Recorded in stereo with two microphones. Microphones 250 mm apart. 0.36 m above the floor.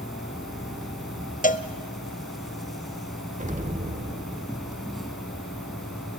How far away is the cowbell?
About 0.7 m.